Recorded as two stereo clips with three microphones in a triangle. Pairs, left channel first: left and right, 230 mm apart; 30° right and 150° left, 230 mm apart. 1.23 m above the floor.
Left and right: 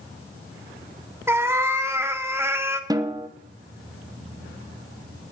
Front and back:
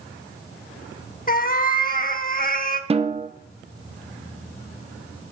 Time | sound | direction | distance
1.3 | a cat meowing | 15° right | 0.9 m
2.9 | a snare drum | 155° right | 0.7 m